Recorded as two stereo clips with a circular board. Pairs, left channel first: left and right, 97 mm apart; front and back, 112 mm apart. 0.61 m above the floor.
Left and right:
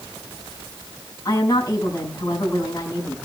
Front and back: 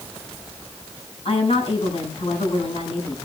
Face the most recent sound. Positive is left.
turn(degrees=35)